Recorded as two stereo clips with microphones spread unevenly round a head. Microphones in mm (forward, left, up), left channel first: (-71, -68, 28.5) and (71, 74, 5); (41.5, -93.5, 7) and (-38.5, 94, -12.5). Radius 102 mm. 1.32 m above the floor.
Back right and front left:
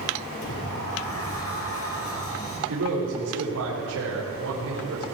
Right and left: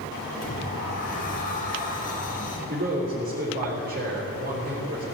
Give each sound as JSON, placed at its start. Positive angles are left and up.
{"t": 0.4, "sound": "a sliding door", "azimuth_deg": -115, "distance_m": 5.0}
{"t": 2.7, "sound": "a man speaking", "azimuth_deg": 65, "distance_m": 4.5}